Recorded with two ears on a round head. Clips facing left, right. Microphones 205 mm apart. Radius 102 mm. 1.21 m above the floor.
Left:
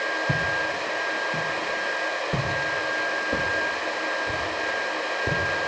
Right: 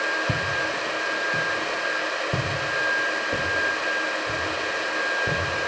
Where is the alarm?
I don't hear an alarm.